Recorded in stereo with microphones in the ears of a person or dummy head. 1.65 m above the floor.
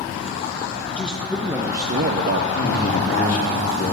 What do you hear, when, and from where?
0.9 s a man speaking: 10° left (ahead or behind), 1.5 m; by 2.5 s 60° right (ahead or behind), 0.8 m
2.5 s a man speaking: 55° left (ahead or behind), 3 m